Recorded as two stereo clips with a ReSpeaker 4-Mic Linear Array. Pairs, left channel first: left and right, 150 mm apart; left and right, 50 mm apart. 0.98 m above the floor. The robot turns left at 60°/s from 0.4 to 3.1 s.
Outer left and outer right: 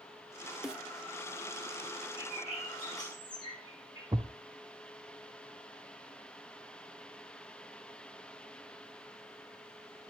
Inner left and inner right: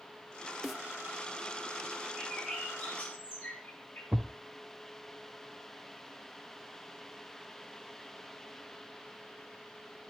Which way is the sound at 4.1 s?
25° right (ahead or behind).